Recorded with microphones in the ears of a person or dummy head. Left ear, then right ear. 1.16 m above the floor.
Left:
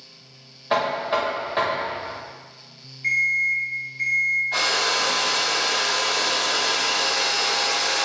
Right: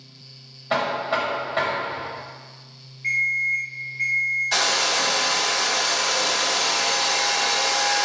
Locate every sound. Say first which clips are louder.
0.7 s knocking: left 1 dB; 5° left (ahead or behind), 0.7 m
3.0 s an alarm clock: left 1 dB; 45° left (ahead or behind), 1.4 m
4.5 s a hair dryer: right 1 dB; 80° right, 0.8 m